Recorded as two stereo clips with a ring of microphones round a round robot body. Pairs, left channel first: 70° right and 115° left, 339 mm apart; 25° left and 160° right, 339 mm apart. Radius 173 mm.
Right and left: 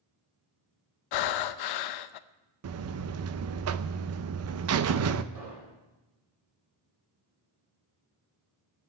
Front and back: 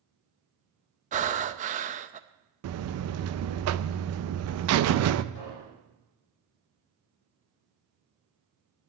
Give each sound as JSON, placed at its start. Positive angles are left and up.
{"t": 1.1, "sound": "breathing", "azimuth_deg": -90, "distance_m": 0.7}
{"t": 2.6, "sound": "a buzzer", "azimuth_deg": 160, "distance_m": 0.6}
{"t": 5.3, "sound": "an explosion", "azimuth_deg": 80, "distance_m": 6.0}